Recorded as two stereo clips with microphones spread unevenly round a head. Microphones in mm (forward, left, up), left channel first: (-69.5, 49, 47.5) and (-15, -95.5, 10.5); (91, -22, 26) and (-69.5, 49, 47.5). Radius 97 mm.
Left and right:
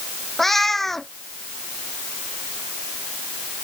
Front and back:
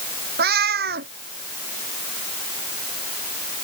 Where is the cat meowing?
165° right.